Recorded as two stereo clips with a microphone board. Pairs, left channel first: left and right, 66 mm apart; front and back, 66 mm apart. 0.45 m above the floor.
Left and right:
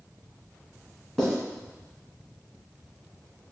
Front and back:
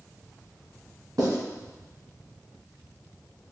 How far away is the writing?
About 1.8 m.